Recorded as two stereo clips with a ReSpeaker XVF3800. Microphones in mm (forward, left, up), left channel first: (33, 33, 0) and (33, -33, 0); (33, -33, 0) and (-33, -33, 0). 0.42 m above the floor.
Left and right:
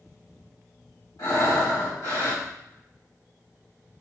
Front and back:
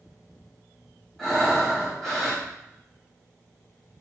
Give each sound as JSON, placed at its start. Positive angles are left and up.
{"t": 1.2, "sound": "breathing", "azimuth_deg": 80, "distance_m": 2.0}